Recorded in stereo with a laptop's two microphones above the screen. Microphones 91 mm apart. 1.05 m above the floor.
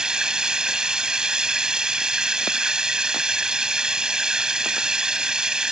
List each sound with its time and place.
0.0 s running water: 10° right (ahead or behind)